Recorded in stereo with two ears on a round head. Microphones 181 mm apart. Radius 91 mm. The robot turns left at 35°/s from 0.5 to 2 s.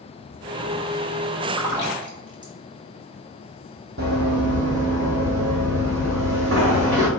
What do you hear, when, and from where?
1.5 s a splash: 10° right (ahead or behind), 1.4 m; by 2.5 s 20° right (ahead or behind), 1.4 m
4.0 s running footsteps: 55° right (ahead or behind), 1.4 m; by 7.1 s 60° right (ahead or behind), 3 m